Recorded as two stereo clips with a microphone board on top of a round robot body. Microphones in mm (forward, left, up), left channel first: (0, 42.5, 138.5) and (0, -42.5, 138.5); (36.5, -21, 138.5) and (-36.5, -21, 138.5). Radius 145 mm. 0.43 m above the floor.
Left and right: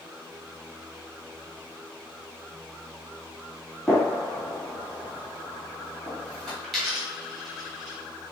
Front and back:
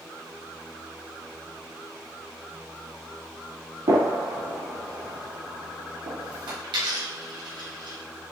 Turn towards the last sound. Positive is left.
turn(degrees=180)